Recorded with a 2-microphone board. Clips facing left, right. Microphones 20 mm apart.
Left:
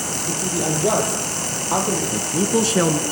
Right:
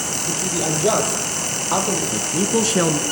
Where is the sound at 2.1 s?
15° right (ahead or behind), 1.8 m.